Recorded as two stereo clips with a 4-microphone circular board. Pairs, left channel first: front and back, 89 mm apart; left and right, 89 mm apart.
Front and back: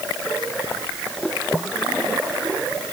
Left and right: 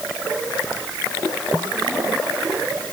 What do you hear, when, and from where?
Only background noise.